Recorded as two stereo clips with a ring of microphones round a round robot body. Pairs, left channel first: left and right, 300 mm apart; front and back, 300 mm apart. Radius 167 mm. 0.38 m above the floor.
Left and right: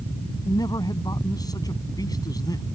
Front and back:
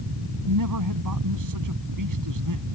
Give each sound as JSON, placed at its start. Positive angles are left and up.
{"t": 0.5, "sound": "a man speaking", "azimuth_deg": 165}